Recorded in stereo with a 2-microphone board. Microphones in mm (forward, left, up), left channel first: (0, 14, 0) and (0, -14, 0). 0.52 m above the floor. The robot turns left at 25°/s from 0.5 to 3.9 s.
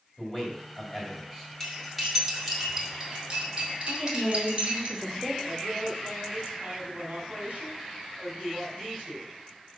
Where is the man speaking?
30° left (ahead or behind), 2 m; by 1.5 s 10° left (ahead or behind), 2 m.